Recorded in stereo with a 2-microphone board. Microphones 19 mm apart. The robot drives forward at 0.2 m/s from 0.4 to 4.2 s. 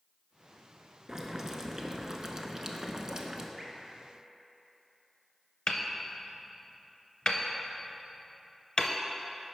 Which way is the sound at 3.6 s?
30° right (ahead or behind).